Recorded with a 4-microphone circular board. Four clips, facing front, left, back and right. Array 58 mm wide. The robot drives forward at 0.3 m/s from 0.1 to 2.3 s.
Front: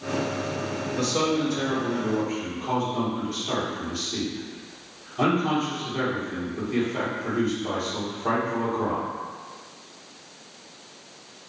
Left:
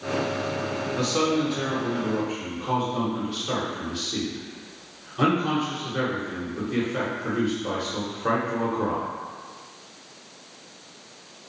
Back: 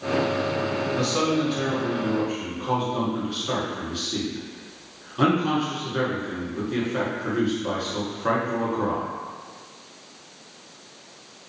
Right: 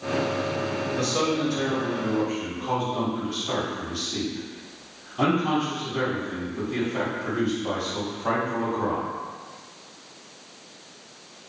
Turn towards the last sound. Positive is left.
turn(degrees=160)